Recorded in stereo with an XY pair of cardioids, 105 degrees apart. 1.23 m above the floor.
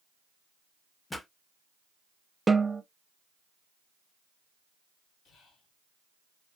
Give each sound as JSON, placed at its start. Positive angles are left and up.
{"t": 1.1, "sound": "a pop", "azimuth_deg": 15, "distance_m": 0.7}
{"t": 2.5, "sound": "a snare drum", "azimuth_deg": -15, "distance_m": 0.7}
{"t": 5.2, "sound": "whispering", "azimuth_deg": 70, "distance_m": 1.4}